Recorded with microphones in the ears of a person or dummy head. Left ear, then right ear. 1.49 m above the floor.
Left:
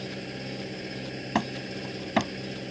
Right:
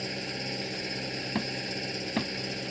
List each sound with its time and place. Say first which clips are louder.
0.0 s an engine running: right 3 dB; 30° right (ahead or behind)
1.4 s hammering: left 6 dB; 30° left (ahead or behind)